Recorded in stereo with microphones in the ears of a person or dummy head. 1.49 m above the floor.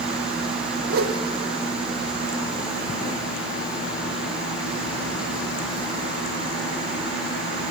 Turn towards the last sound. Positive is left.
turn(degrees=-55)  # may be behind; listen again after turning